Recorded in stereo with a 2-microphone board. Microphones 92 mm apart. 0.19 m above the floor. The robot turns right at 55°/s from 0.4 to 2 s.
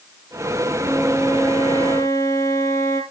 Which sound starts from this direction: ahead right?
A flute, at 0.8 s.